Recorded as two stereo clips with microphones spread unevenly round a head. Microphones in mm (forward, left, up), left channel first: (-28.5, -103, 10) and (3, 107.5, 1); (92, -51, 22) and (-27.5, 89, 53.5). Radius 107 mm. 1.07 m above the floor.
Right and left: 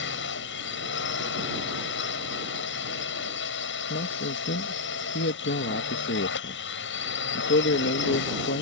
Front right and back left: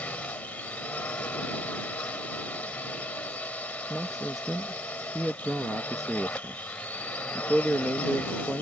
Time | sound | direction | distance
0.0 | a drone | 135° right | ?
3.9 | a man speaking | 135° right | ?